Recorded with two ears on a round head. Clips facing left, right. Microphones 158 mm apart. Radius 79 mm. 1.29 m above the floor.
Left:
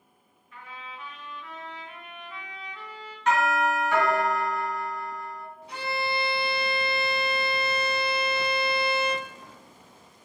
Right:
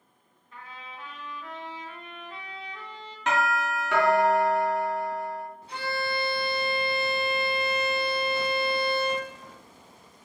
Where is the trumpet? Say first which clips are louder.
Left 1 dB; 30° right (ahead or behind), 0.8 m.